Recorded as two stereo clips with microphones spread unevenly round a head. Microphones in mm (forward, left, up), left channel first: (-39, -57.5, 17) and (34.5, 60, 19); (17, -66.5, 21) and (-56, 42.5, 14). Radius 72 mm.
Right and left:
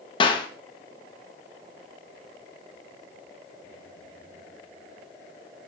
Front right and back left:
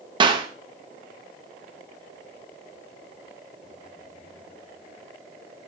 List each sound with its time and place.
0.2 s a clap: straight behind, 1.7 m